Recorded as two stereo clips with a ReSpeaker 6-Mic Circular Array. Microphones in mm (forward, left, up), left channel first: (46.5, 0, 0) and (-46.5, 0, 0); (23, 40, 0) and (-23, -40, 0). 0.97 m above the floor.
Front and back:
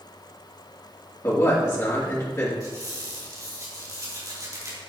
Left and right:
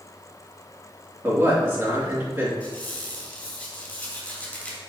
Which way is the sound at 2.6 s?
135° left.